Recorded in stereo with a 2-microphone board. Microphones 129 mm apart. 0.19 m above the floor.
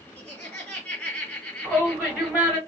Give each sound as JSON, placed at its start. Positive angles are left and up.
{"t": 0.2, "sound": "laughter", "side_deg": 10, "distance_m": 1.8}
{"t": 1.6, "sound": "a shout", "side_deg": -10, "distance_m": 2.0}